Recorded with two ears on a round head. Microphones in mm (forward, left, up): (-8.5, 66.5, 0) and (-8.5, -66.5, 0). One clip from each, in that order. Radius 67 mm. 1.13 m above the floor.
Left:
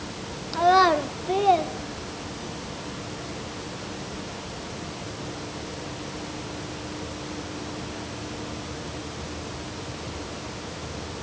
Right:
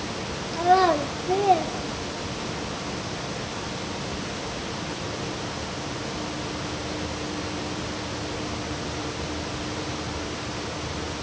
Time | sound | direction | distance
0.5 | a child speaking | 45° left (ahead or behind) | 1.3 m